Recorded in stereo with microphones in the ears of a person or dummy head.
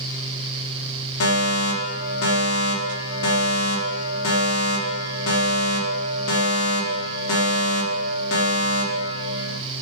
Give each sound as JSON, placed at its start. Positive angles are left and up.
{"t": 1.2, "sound": "a fire alarm", "side_deg": 75, "distance_m": 4.5}